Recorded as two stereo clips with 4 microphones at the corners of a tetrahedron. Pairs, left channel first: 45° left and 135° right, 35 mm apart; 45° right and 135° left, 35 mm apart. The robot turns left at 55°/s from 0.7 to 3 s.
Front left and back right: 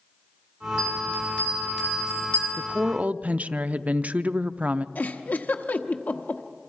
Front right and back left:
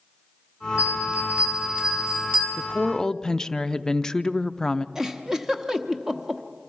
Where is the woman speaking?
90° right, 0.5 m; by 4.8 s 110° right, 0.5 m.